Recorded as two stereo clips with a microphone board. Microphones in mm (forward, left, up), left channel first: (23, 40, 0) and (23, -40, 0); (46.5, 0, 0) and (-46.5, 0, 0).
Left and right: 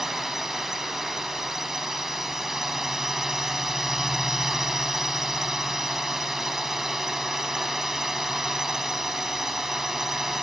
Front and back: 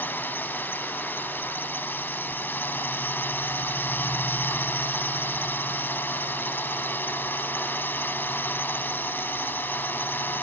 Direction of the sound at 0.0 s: 10° right.